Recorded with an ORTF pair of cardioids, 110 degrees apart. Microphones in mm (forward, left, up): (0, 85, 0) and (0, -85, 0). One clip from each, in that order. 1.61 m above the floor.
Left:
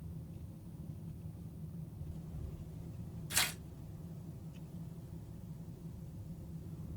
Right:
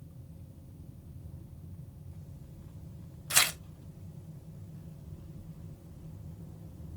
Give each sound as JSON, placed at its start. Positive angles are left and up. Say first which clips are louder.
{"t": 3.3, "sound": "tearing paper", "louder": "right 8 dB", "azimuth_deg": -55, "distance_m": 0.6}